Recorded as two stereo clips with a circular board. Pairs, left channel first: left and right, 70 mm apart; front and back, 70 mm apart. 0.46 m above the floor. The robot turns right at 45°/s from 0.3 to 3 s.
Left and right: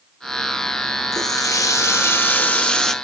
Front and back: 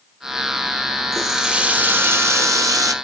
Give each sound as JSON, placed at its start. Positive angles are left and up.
{"t": 1.1, "sound": "a running tap", "azimuth_deg": 90, "distance_m": 0.7}